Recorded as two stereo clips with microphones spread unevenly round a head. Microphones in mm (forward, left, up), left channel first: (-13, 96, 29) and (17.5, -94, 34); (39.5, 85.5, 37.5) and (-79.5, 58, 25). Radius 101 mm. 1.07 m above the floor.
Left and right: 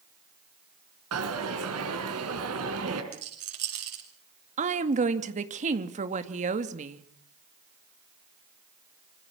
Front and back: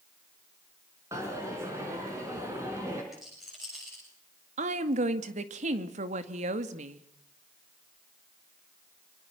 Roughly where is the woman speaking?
Behind right.